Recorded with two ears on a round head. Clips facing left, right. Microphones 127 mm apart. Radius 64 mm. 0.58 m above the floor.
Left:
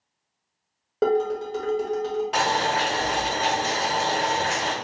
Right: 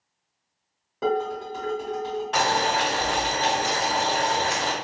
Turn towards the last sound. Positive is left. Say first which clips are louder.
# right 2 dB
turn(degrees=10)  # may be behind; listen again after turning